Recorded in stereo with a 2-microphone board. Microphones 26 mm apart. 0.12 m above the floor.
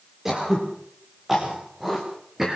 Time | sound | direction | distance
0.2 | throat clearing | 15° right (ahead or behind) | 6.5 m